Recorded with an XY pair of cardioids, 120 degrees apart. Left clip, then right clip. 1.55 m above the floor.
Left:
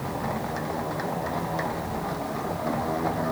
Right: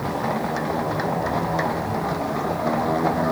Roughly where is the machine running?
Ahead right.